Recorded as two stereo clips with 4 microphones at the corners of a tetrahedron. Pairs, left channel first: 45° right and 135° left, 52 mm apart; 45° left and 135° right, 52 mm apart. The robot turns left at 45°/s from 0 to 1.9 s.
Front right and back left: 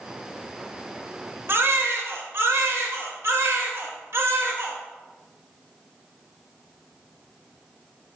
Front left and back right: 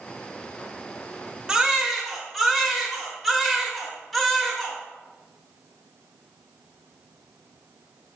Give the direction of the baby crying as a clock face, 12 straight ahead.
7 o'clock.